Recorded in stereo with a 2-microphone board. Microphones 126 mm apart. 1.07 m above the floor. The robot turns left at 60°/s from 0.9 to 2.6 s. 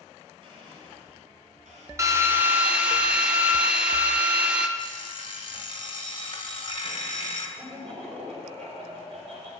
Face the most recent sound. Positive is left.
turn(degrees=-60)  # may be behind; listen again after turning